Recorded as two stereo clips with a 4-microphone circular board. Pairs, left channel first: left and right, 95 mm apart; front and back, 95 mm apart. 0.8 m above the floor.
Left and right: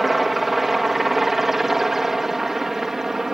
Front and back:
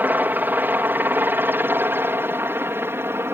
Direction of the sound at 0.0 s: 175° right.